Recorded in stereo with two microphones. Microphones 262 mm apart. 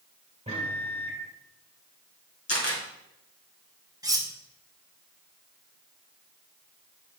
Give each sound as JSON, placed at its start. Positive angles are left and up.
{"t": 0.5, "sound": "a microwave", "side_deg": -25, "distance_m": 2.5}
{"t": 2.5, "sound": "a camera shutter", "side_deg": 60, "distance_m": 2.5}
{"t": 4.0, "sound": "cutlery clinking", "side_deg": -15, "distance_m": 1.2}